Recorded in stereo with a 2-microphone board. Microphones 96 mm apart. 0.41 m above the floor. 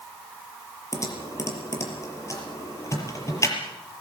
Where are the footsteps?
No footsteps in this recording.